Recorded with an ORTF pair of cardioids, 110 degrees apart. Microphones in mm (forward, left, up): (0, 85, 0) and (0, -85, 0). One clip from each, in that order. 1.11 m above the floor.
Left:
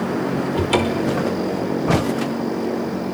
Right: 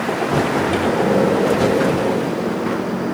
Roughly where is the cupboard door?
Ahead left.